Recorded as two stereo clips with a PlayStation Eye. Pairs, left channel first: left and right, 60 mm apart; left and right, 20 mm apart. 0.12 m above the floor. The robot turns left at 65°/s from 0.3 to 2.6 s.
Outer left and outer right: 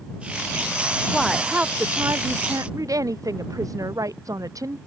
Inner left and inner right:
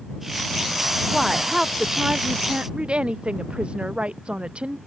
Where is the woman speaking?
10° left; by 4.8 s 90° right.